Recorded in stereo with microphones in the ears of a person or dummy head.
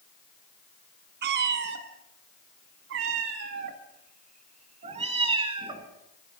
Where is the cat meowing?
55° right (ahead or behind), 3 m; by 5.9 s 25° right (ahead or behind), 3 m.